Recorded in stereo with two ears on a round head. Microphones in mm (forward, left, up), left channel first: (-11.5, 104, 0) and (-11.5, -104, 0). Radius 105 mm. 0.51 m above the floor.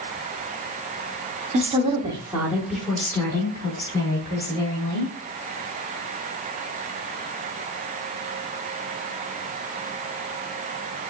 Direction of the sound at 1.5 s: 30° right (ahead or behind).